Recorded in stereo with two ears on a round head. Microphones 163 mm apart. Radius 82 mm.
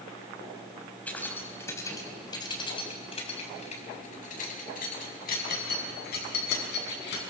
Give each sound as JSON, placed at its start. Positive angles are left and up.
{"t": 1.1, "sound": "keys jangling", "side_deg": 10, "distance_m": 3.5}